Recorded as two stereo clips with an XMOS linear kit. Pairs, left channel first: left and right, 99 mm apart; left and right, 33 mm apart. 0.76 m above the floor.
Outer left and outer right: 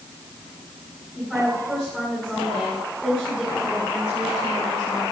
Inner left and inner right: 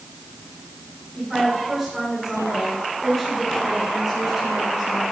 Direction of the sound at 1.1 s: 5° left (ahead or behind).